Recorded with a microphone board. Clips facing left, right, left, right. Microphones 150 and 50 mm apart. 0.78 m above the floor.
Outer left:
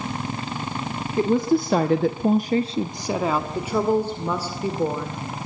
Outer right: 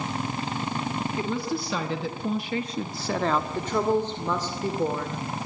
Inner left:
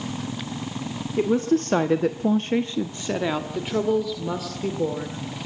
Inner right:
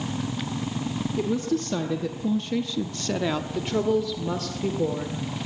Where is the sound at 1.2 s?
40° left (ahead or behind), 1.6 m; by 3.5 s 5° left (ahead or behind), 1.5 m.